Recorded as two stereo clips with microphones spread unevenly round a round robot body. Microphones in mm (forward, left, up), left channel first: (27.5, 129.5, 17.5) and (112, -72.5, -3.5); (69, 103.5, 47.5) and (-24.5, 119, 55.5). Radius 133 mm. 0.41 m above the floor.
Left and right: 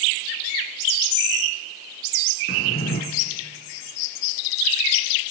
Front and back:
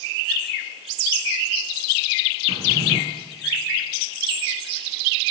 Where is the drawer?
170° left, 2.5 m.